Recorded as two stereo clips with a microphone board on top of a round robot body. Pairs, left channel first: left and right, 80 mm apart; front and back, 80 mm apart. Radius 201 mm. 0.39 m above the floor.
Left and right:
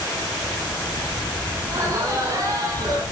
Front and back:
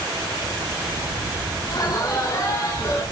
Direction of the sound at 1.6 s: 40° right.